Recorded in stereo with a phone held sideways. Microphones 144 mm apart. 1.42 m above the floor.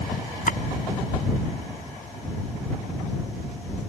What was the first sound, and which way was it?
A splash, 75° left (ahead or behind).